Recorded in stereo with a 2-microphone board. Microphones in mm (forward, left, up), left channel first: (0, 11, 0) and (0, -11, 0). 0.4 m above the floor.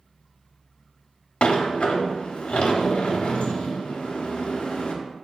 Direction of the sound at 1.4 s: 70° left (ahead or behind).